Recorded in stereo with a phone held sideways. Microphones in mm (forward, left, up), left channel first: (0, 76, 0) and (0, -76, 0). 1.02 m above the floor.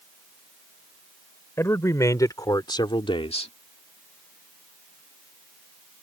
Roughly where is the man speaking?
Centre.